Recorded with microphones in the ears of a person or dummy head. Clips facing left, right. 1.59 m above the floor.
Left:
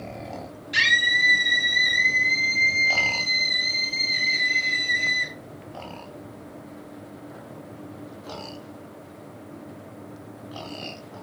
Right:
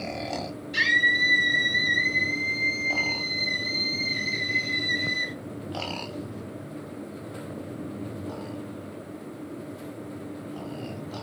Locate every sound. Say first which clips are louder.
0.7 s a scream: right 2 dB; 85° left, 5 m; by 5.3 s 45° left (ahead or behind), 6 m